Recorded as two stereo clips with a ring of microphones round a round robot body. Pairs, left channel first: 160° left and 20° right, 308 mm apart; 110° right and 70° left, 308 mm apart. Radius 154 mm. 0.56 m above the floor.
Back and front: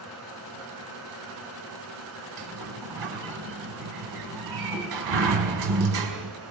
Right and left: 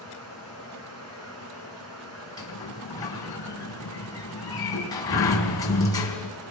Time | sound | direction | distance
0.0 | running water | 25° left | 5 m
2.4 | a sliding door | 30° right | 4.5 m